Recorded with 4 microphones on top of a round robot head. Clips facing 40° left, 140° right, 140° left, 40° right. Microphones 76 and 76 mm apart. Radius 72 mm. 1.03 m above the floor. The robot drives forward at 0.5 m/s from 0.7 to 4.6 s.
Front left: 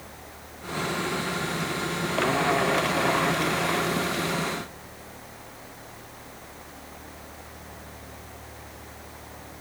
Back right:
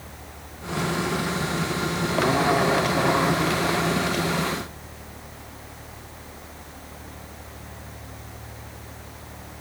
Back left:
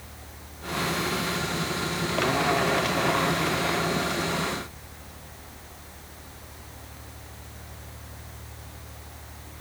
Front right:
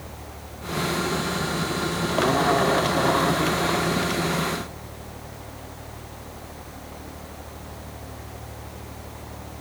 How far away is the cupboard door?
I don't hear a cupboard door.